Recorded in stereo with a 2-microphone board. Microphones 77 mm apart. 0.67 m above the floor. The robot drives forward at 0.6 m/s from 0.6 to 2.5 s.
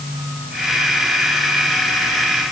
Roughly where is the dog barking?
No dog barking in this recording.